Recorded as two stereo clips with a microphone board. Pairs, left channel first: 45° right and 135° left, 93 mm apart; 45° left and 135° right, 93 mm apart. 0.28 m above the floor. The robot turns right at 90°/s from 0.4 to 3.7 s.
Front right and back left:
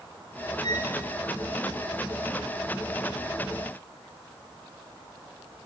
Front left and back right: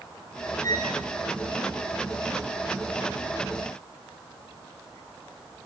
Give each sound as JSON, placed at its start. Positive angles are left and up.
{"t": 0.6, "sound": "a violin", "azimuth_deg": -10, "distance_m": 2.5}